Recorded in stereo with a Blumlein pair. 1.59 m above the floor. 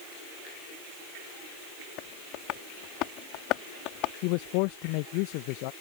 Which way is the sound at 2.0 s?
40° left.